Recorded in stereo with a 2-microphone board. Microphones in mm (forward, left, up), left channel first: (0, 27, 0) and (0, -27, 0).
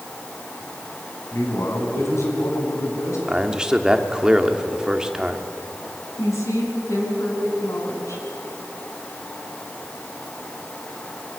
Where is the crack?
I don't hear a crack.